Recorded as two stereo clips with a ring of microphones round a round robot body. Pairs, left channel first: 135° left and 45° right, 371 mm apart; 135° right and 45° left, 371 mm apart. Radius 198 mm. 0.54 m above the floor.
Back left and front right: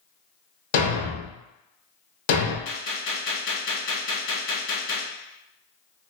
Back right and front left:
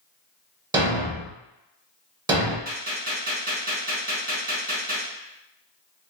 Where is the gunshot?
105° left, 1.4 m.